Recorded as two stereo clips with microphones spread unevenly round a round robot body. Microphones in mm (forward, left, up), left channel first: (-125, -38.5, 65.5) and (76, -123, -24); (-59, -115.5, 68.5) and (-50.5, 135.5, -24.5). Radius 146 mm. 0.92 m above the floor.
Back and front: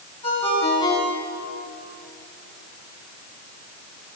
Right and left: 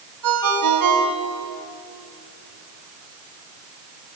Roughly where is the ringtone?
Left.